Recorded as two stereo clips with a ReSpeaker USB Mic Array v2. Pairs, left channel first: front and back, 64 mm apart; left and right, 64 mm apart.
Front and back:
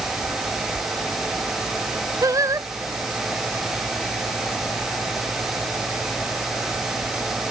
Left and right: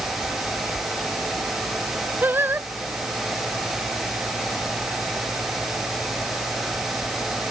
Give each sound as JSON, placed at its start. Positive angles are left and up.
{"t": 2.2, "sound": "singing", "azimuth_deg": -145}